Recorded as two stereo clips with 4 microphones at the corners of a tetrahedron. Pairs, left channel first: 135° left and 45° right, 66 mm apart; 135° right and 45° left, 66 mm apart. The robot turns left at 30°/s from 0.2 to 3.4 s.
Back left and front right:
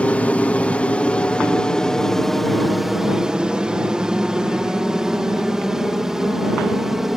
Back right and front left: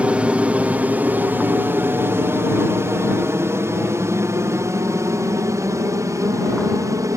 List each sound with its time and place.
0.0 s an aircraft: 90° left; by 7.2 s 40° left